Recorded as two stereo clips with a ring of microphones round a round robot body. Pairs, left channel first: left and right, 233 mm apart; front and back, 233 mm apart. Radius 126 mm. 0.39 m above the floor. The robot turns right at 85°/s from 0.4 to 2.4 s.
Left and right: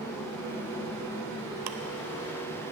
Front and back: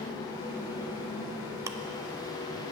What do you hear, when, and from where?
1.7 s ticking: 105° right, 0.5 m; by 1.8 s 95° right, 0.5 m